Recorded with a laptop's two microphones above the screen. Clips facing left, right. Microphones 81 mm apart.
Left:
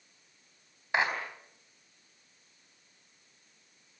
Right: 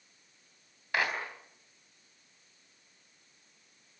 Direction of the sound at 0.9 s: 20° left (ahead or behind).